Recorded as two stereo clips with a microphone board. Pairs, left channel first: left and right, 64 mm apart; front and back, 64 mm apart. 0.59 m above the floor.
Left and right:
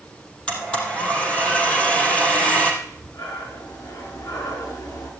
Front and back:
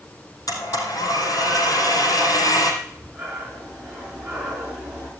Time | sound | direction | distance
0.5 | a blender | 15° left | 3.5 m
2.8 | breathing | 105° left | 5.5 m